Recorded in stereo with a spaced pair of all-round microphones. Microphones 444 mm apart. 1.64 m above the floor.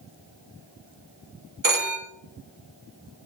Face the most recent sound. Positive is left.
turn(degrees=-45)  # may be behind; listen again after turning